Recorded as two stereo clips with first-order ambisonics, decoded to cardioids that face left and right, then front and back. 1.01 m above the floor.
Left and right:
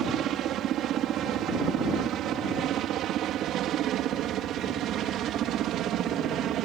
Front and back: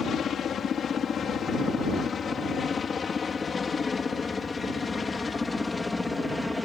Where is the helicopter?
55° right; by 6.7 s 75° right.